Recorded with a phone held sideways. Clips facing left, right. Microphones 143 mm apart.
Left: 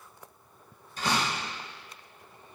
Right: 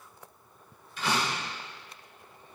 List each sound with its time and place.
1.0 s a door slam: 40° left (ahead or behind), 4 m